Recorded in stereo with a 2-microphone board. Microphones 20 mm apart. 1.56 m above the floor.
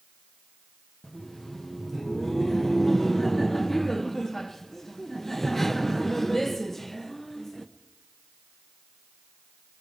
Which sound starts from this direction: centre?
Laughter, at 1.0 s.